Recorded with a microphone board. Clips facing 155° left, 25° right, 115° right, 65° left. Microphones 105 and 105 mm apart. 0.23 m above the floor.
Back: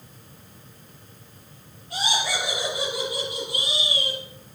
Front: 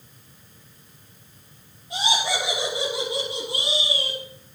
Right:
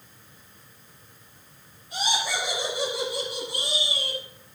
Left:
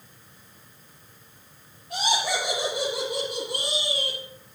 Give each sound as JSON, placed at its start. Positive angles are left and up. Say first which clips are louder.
{"t": 1.9, "sound": "laughter", "louder": "front 2 dB, left 3 dB", "azimuth_deg": 50, "distance_m": 5.5}